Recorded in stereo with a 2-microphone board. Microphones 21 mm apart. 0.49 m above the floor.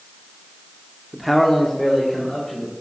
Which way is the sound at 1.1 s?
10° right (ahead or behind).